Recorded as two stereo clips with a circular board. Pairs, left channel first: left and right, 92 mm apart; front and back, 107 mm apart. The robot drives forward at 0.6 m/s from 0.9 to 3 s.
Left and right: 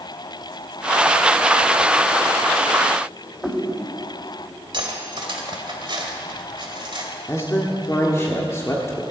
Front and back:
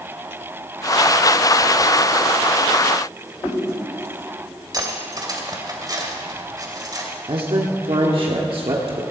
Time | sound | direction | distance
3.4 | a whoosh | 45° left | 6 m
4.7 | cutlery clinking | 125° right | 1.8 m
7.3 | a man speaking | 150° left | 1.4 m